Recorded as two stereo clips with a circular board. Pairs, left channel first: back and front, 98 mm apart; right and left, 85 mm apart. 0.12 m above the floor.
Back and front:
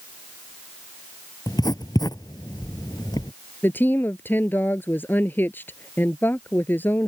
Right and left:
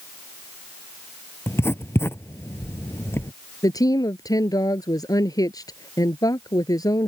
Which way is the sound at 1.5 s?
145° right.